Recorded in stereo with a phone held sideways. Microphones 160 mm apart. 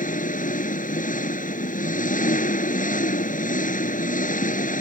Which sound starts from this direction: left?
An engine running, at 0.0 s.